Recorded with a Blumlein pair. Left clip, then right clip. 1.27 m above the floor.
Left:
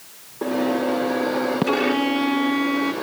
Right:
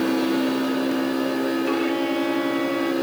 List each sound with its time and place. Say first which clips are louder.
1.7 s a violin: left 2 dB; 15° left